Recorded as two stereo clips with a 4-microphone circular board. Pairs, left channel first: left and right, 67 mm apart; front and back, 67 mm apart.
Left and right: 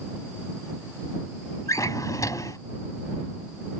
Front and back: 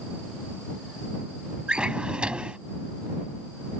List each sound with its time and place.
1.7 s a drawer: 105° left